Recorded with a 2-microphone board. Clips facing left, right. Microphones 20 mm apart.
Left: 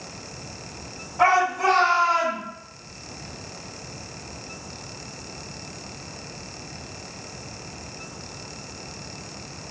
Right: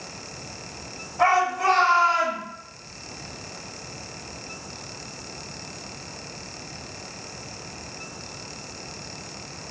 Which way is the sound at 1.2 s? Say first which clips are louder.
Left 1 dB; 30° left (ahead or behind).